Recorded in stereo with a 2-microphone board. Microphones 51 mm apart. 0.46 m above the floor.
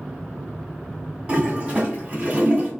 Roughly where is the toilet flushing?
Right.